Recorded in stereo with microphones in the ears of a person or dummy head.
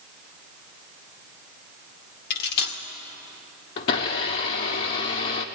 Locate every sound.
2.3 s cutlery clinking: 55° left (ahead or behind), 1.9 m
3.8 s a blender: 20° left (ahead or behind), 0.8 m